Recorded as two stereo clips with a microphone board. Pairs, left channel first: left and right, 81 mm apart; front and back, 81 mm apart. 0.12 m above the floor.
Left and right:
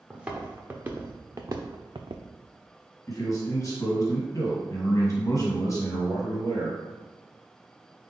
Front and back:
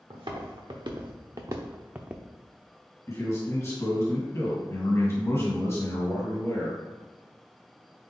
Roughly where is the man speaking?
Ahead left.